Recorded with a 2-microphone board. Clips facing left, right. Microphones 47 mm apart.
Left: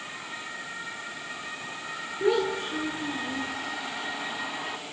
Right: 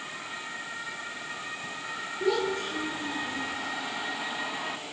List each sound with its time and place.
2.2 s a child speaking: 20° left (ahead or behind), 9 m; by 3.5 s 15° left (ahead or behind), 8.5 m